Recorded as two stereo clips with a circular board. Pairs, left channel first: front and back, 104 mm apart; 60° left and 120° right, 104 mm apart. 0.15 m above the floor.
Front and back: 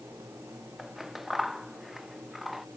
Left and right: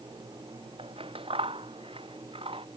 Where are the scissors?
90° right.